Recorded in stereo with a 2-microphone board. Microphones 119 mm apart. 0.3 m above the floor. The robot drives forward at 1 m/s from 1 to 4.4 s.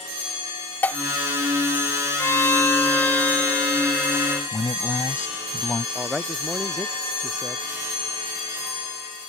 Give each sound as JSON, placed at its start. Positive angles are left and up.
{"t": 0.8, "sound": "dishes clattering", "side_deg": 15}
{"t": 2.2, "sound": "a violin", "side_deg": 25}
{"t": 4.5, "sound": "a man speaking", "side_deg": 25}
{"t": 6.0, "sound": "a man speaking", "side_deg": 0}